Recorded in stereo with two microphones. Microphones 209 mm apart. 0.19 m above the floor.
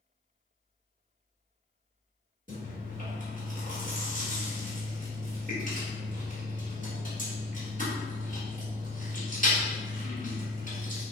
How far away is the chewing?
About 1.3 m.